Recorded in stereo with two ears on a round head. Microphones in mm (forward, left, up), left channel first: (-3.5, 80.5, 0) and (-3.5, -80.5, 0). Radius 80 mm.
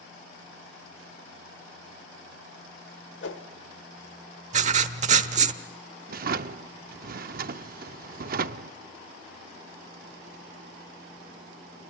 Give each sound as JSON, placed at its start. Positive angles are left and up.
{"t": 3.2, "sound": "a whoosh", "side_deg": 75, "distance_m": 1.5}
{"t": 4.5, "sound": "writing", "side_deg": -40, "distance_m": 1.0}
{"t": 6.1, "sound": "a drawer", "side_deg": -50, "distance_m": 0.6}